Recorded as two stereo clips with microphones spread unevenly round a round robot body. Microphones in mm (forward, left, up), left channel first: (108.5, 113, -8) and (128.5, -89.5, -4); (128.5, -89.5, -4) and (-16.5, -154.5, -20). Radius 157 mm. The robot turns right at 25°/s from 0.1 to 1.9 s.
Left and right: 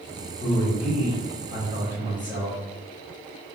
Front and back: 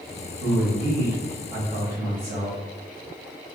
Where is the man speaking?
130° left, 1.1 m; by 2.6 s 165° left, 1.1 m.